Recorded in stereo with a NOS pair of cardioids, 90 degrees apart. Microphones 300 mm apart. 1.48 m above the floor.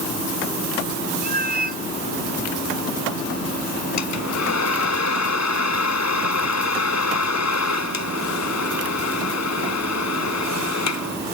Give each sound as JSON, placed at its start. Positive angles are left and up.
{"t": 1.2, "sound": "a cat meowing", "azimuth_deg": -30}
{"t": 4.0, "sound": "a hair dryer", "azimuth_deg": 65}